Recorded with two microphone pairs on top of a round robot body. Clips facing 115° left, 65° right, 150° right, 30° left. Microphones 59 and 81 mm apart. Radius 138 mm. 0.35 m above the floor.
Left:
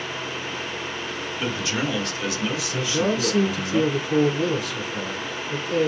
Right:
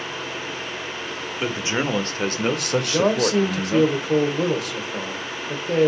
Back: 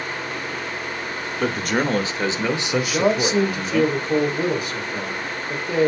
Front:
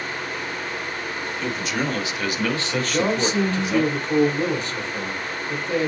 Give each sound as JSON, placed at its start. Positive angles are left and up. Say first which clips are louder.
{"t": 1.4, "sound": "a man speaking", "louder": "right 2 dB, back 5 dB", "azimuth_deg": -135, "distance_m": 1.6}
{"t": 2.8, "sound": "a man speaking", "louder": "right 2 dB, back 2 dB", "azimuth_deg": -75, "distance_m": 2.5}